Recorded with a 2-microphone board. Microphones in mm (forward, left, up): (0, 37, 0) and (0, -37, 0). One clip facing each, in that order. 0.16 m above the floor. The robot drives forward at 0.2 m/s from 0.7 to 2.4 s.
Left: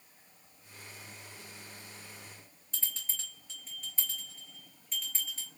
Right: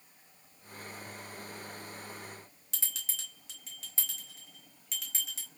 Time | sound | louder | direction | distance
2.7 | a bell | left 1 dB | 80° right | 1.7 m